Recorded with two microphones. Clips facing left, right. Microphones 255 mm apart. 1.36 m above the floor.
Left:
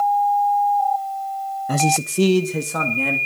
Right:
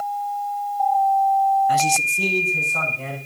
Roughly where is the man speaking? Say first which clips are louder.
Left 3 dB; left.